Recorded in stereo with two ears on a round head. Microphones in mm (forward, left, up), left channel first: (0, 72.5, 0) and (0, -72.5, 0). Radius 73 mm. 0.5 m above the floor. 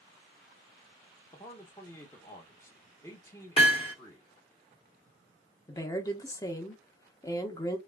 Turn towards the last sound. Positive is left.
turn(degrees=20)  # may be behind; listen again after turning